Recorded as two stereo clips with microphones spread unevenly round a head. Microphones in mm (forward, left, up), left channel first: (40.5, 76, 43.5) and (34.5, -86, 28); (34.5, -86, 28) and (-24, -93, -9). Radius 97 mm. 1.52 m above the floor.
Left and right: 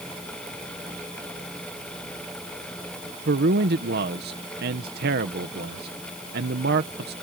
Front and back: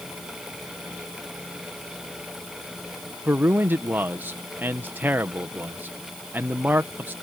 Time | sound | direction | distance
3.2 | a man speaking | 120° right | ?